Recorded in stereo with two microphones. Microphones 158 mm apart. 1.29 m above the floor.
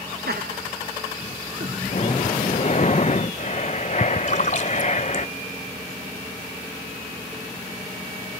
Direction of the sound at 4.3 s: 50° left (ahead or behind).